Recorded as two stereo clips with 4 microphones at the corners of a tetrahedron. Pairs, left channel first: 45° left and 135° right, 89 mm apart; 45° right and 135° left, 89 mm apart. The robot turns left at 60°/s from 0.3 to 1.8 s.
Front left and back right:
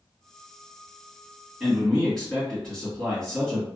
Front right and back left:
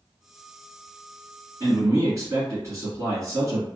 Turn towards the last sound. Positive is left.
turn(degrees=125)